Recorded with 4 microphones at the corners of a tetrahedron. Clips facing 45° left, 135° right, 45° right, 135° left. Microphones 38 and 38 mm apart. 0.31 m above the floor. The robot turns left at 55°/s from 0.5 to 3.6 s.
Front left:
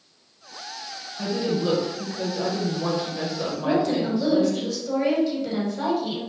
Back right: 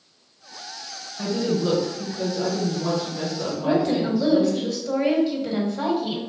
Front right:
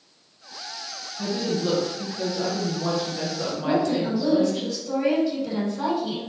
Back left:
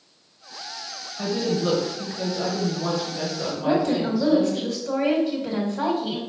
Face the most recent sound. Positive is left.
turn(degrees=150)